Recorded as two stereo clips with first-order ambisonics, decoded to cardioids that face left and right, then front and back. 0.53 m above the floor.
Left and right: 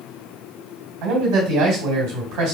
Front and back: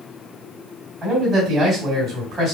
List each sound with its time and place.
1.0 s a man speaking: 110° right, 3 m